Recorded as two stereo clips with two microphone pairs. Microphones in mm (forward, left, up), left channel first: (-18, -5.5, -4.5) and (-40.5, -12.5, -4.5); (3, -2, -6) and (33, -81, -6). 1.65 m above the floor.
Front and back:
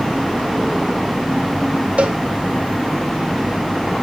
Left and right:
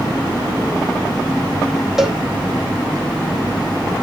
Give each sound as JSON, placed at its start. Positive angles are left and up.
{"t": 2.0, "sound": "a cowbell", "azimuth_deg": -150, "distance_m": 1.2}